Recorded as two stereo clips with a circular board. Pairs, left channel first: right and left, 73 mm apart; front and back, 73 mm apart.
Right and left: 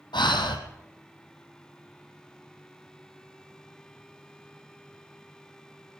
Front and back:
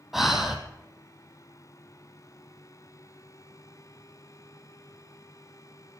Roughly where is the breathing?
Right.